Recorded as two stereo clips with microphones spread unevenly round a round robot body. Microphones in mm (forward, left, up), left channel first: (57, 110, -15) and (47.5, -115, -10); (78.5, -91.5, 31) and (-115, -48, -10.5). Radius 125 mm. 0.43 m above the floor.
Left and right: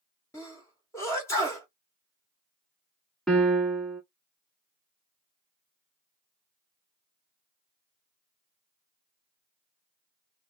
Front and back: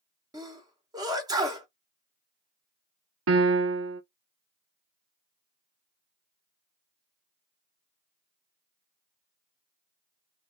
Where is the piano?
175° left, 0.6 m.